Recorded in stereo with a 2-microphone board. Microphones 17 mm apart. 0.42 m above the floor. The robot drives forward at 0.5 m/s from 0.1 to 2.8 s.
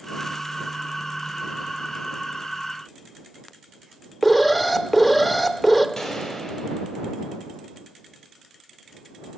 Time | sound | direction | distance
4.2 | an alarm | 5° left (ahead or behind) | 0.6 m
6.0 | a gunshot | 20° left (ahead or behind) | 2.5 m